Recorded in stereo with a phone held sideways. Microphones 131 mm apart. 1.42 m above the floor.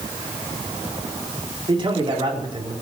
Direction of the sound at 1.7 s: 40° right (ahead or behind).